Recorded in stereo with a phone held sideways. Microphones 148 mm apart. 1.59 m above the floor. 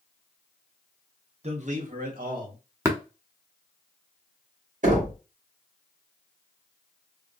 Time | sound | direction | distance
1.4 | a man speaking | 45° right (ahead or behind) | 0.9 m
2.9 | tapping | 20° right (ahead or behind) | 0.8 m
4.8 | knocking | 55° right (ahead or behind) | 1.9 m